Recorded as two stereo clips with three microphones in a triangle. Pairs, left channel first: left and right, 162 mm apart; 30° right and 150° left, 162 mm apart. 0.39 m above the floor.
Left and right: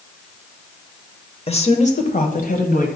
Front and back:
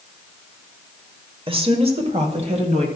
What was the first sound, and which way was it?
A woman speaking, 115° left.